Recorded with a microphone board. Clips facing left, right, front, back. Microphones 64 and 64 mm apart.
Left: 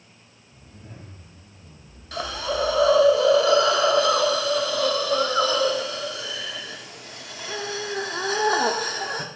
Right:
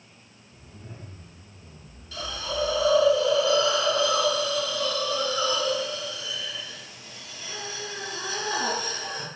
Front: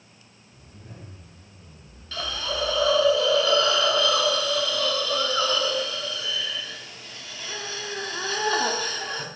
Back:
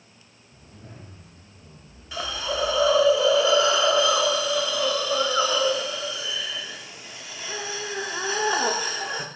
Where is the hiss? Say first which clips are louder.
Left 5 dB, back 2 dB; 105° left, 0.7 m.